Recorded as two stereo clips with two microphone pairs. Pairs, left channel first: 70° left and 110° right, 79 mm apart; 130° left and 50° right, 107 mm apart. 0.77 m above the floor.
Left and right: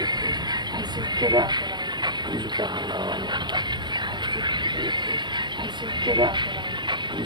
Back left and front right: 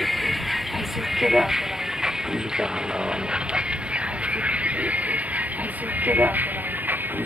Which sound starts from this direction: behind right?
A vehicle, at 0.0 s.